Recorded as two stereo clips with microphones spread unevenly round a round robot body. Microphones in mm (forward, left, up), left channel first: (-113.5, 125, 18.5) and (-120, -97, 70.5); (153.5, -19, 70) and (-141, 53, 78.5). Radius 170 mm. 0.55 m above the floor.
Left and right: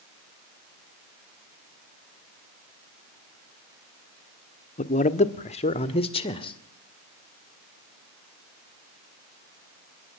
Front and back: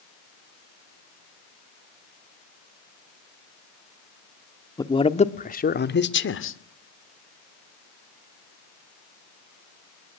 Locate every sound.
4.8 s a man speaking: 60° left, 1.5 m; by 6.6 s 25° left, 2 m